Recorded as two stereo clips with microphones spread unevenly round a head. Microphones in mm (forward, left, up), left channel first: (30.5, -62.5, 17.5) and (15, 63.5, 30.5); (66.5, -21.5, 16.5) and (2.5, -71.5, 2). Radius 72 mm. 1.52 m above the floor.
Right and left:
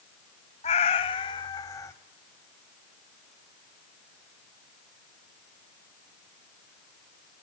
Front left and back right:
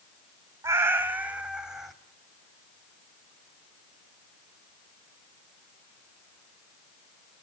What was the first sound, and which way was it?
A cat meowing, 90° right.